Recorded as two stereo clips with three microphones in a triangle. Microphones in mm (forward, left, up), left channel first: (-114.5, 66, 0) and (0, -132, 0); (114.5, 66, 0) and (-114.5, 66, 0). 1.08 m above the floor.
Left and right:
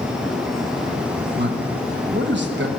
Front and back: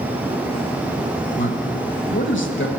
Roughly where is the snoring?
No snoring in this recording.